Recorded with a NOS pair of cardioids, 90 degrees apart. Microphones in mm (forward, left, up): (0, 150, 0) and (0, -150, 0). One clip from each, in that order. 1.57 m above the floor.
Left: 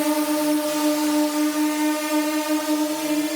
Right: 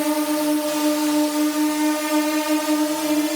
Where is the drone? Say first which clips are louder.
Even; straight ahead; by 3.4 s 50° right.